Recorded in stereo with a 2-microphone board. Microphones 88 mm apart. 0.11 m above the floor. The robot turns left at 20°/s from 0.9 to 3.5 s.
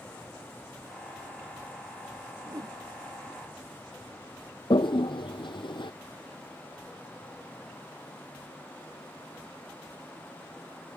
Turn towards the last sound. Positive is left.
turn(degrees=65)  # may be behind; listen again after turning